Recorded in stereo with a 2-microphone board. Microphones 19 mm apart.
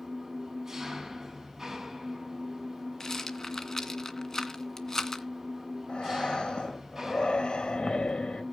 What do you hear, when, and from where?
0.0 s an engine running: 20° right (ahead or behind), 6 m
3.0 s a rattle: 30° left (ahead or behind), 1.9 m
5.9 s breathing: 75° left (ahead or behind), 3 m